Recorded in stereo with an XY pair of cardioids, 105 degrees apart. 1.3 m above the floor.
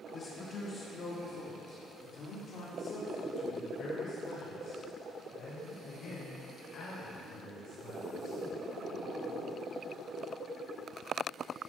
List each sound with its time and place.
0.1 s a man speaking: 60° left, 1.6 m; by 8.4 s 75° left, 6 m